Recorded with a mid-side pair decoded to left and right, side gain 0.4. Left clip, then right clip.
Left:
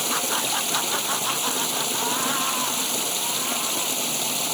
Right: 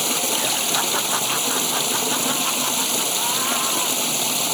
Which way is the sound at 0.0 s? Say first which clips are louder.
Right 3 dB; 30° right.